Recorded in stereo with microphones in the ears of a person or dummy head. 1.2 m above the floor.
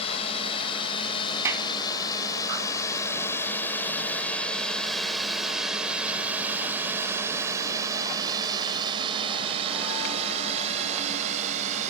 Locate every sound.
0.0 s a drone: 40° left (ahead or behind); by 11.9 s 35° right (ahead or behind)
1.4 s a clap: 10° right (ahead or behind)